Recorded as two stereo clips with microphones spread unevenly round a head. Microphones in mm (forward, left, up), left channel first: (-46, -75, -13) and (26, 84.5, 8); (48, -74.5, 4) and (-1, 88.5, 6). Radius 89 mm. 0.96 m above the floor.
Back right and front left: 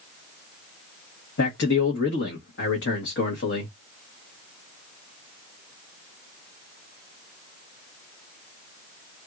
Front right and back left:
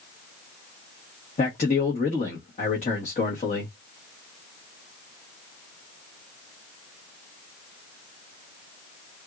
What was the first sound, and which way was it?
A man speaking, 125° right.